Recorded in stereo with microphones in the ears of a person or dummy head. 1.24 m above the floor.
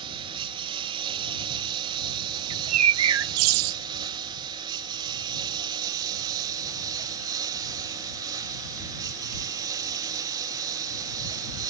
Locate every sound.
0.0 s a lawn mower: 25° right (ahead or behind); by 11.7 s 20° right (ahead or behind)
2.5 s a bird: 75° right (ahead or behind)